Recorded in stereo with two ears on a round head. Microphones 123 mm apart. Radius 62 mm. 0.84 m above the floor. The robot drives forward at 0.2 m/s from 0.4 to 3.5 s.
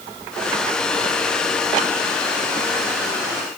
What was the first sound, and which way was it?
Only background noise.